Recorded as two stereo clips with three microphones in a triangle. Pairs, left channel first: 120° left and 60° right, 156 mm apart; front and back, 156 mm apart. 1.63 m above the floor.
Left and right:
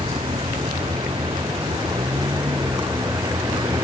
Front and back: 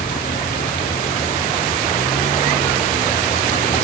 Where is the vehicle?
5° right; by 3.9 s 5° left.